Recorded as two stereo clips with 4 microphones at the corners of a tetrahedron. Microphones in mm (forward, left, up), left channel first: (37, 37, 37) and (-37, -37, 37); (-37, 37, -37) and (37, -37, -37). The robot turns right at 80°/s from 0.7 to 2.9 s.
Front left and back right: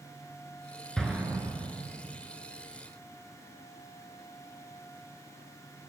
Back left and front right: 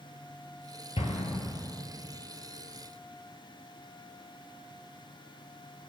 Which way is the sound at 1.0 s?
130° left.